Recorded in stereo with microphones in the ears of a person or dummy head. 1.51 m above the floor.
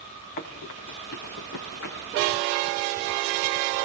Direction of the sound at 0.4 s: 55° left (ahead or behind).